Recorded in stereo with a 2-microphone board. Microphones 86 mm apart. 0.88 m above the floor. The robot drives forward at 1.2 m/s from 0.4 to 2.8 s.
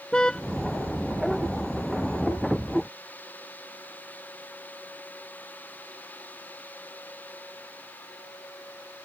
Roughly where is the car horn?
Centre.